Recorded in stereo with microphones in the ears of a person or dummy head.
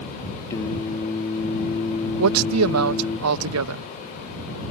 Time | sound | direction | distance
0.5 | singing | 20° left (ahead or behind) | ?
2.2 | a man speaking | 85° right | ?